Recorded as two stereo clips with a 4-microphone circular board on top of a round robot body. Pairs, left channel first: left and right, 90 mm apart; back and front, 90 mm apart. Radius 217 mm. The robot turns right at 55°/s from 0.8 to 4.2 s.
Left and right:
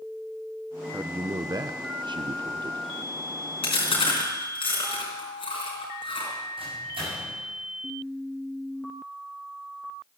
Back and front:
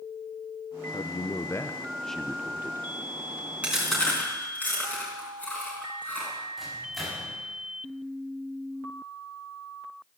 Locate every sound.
0.9 s a man speaking: 160° right, 0.9 m; by 2.9 s 55° right, 0.9 m
3.6 s chewing: 75° left, 3.5 m; by 6.3 s 105° left, 3.5 m
6.6 s a microwave: 90° right, 7 m